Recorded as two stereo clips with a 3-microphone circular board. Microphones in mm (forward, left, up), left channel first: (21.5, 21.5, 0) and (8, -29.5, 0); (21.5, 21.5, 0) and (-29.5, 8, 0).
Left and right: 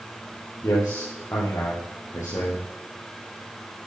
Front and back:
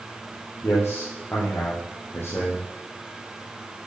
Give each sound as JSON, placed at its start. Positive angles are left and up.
{"t": 0.6, "sound": "a man speaking", "azimuth_deg": 60, "distance_m": 4.5}